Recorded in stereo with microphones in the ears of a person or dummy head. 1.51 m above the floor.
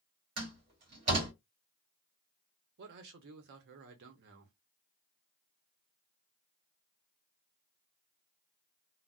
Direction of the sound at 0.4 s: 35° right (ahead or behind).